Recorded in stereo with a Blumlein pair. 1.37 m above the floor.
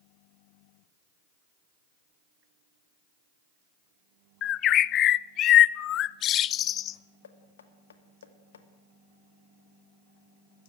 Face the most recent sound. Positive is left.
turn(degrees=65)